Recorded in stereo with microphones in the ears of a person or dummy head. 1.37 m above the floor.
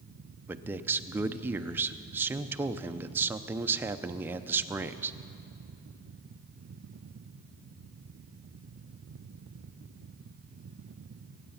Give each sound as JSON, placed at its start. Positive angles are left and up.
{"t": 0.5, "sound": "a man speaking", "side_deg": -15, "distance_m": 0.5}